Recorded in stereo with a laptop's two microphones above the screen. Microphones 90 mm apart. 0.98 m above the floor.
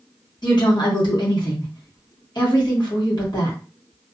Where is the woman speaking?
55° left (ahead or behind), 1.2 m.